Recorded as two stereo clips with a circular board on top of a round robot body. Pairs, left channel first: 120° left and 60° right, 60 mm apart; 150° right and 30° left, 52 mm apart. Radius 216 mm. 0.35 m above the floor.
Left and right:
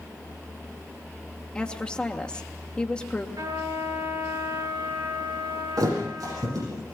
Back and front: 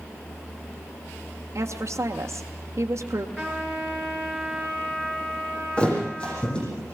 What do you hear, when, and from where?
1.6 s a woman speaking: 50° left, 1.8 m
3.4 s a trumpet: 60° right, 7.5 m
5.8 s a thud: 80° right, 10 m